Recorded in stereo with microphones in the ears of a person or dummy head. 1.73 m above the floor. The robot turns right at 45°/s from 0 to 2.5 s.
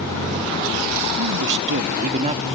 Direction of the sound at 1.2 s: 80° right.